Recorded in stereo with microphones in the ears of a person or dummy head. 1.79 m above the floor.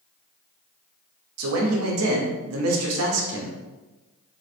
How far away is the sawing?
I don't hear sawing.